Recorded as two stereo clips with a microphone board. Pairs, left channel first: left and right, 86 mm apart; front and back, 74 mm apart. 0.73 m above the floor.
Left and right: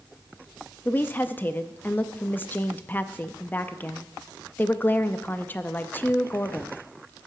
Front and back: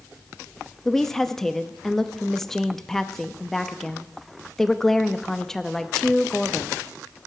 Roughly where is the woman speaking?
Left.